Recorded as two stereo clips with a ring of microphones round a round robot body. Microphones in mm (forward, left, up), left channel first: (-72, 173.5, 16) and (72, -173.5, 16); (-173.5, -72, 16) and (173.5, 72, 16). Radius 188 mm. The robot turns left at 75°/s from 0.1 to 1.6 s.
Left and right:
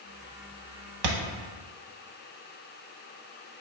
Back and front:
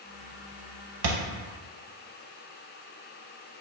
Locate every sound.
1.0 s a thud: 30° right, 0.6 m; by 1.2 s 35° right, 0.6 m